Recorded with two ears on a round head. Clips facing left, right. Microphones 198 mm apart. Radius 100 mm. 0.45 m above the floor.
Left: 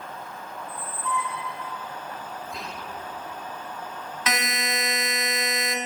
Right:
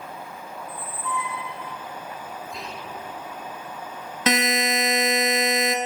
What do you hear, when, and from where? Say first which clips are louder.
0.6 s a squeak: even; centre (ahead or behind), 0.5 m
2.5 s whispering: right 1 dB; centre (ahead or behind), 1.0 m
4.3 s a buzzer: right 8 dB; 25° right (ahead or behind), 1.0 m